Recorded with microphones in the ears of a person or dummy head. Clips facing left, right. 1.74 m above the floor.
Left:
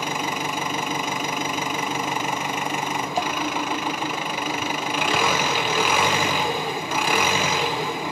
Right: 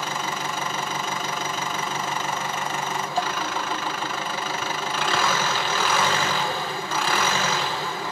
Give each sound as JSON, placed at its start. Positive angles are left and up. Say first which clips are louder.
{"t": 0.0, "sound": "an engine running", "louder": "left 2 dB", "side_deg": 15, "distance_m": 0.9}